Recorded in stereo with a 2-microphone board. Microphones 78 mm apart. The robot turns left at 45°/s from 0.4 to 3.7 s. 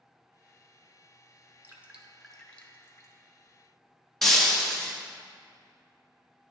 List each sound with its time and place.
1.6 s dripping: 30° right (ahead or behind), 0.6 m; by 3.1 s 40° left (ahead or behind), 0.6 m
4.2 s breaking glass: 5° left (ahead or behind), 0.8 m